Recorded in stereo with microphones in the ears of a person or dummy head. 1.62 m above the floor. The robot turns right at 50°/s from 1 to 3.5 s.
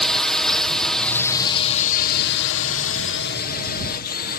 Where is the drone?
5° left; by 4.4 s 130° left.